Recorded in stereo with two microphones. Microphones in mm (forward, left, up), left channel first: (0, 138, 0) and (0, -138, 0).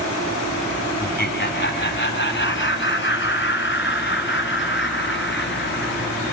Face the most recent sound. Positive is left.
turn(degrees=40)  # may be behind; listen again after turning